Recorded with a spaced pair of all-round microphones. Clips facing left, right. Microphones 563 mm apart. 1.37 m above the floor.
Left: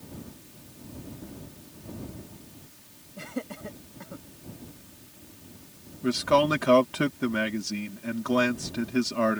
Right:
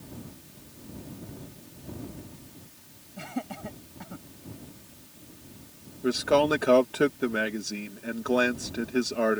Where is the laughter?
10° right (ahead or behind).